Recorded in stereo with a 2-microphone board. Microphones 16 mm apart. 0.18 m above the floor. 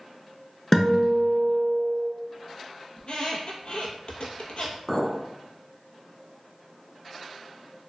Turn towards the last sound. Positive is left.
turn(degrees=15)  # may be behind; listen again after turning